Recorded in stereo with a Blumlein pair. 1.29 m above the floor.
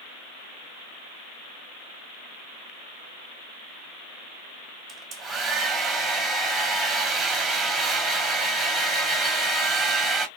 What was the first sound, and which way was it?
A hair dryer, 20° right.